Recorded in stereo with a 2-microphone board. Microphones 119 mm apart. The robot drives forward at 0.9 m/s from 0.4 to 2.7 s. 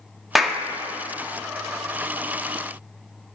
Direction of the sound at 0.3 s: Centre (ahead or behind).